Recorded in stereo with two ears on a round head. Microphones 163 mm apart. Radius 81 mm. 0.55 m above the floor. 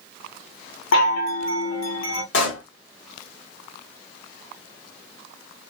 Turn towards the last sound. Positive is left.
turn(degrees=70)  # may be behind; listen again after turning